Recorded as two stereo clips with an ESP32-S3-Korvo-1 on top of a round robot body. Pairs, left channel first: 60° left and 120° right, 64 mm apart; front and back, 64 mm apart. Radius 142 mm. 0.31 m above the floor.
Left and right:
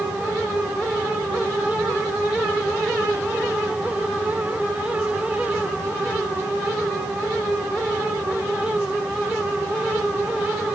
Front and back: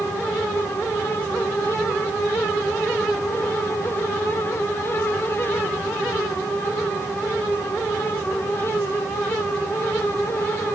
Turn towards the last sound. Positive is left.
No sound to turn to.